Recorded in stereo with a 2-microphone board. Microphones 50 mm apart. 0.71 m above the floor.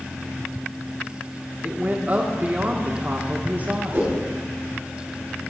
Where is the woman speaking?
30° right (ahead or behind), 1.4 m.